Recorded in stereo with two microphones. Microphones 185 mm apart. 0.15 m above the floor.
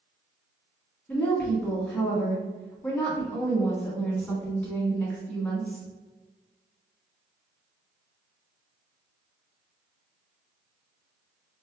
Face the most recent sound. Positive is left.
turn(degrees=5)  # may be behind; listen again after turning